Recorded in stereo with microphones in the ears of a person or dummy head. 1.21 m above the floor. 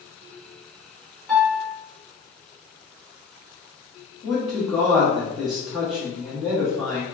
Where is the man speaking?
5° right (ahead or behind), 1.2 m.